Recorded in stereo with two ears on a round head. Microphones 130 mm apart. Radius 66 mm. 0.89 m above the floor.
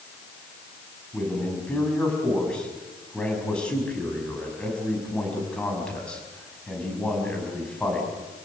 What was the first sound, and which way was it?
A man speaking, 5° left (ahead or behind).